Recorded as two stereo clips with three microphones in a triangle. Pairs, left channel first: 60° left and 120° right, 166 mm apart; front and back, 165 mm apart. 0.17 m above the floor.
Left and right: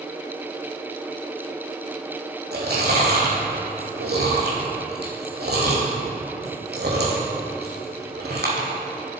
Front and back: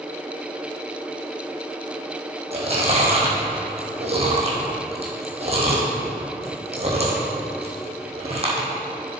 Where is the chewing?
130° right, 2.5 m.